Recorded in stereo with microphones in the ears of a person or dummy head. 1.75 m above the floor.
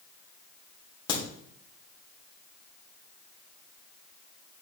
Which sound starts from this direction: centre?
A crack, at 1.1 s.